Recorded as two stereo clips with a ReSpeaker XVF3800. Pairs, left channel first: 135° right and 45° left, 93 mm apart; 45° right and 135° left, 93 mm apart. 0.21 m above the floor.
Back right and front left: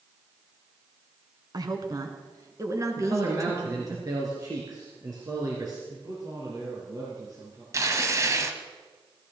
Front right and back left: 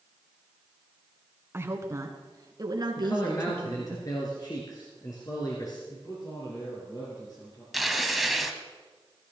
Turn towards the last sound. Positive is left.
turn(degrees=45)